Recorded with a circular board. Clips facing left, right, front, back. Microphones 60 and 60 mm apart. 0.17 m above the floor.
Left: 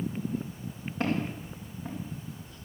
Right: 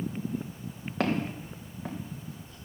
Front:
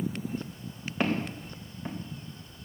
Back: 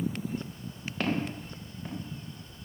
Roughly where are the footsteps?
Right.